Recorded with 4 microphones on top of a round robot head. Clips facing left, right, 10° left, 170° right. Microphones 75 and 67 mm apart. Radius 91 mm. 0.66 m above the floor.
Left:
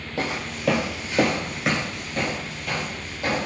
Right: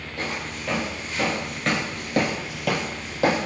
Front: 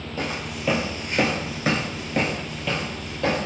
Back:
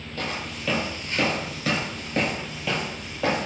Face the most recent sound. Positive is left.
turn(degrees=-85)